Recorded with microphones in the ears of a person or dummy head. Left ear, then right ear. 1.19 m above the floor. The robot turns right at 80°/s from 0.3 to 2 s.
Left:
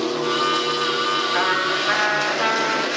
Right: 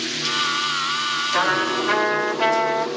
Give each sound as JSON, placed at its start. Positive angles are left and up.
{"t": 1.3, "sound": "a trumpet", "azimuth_deg": 155, "distance_m": 1.2}